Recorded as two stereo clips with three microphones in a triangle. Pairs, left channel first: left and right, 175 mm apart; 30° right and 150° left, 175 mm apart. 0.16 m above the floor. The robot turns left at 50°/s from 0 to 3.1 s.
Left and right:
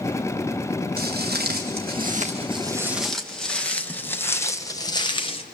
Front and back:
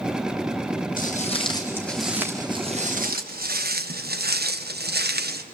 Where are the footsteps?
65° right, 4 m; by 5.4 s 140° left, 1.6 m.